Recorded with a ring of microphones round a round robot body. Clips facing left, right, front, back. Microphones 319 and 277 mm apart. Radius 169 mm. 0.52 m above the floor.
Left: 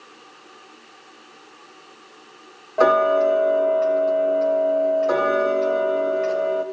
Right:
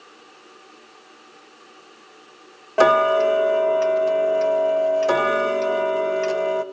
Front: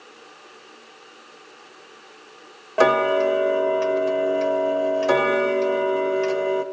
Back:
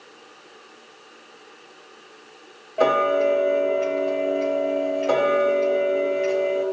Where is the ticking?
45° right, 0.6 m.